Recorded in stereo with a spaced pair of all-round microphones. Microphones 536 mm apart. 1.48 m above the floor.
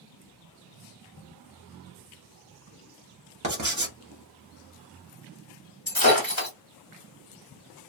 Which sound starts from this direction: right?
Writing, at 3.4 s.